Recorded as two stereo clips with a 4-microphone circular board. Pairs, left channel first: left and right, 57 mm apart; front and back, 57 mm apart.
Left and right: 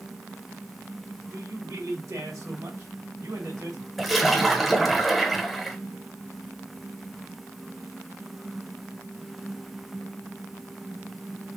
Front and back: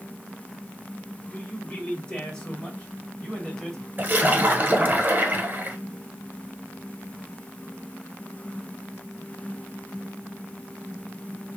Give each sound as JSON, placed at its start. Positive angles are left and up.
{"t": 1.3, "sound": "a man speaking", "azimuth_deg": -75, "distance_m": 2.5}
{"t": 4.0, "sound": "a splash", "azimuth_deg": -175, "distance_m": 1.3}